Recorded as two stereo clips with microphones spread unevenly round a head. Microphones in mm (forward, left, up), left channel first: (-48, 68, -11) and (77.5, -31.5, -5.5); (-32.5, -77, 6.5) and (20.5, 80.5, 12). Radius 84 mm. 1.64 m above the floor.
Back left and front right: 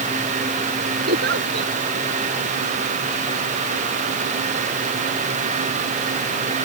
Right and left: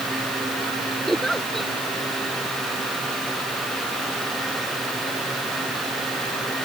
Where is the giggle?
20° right.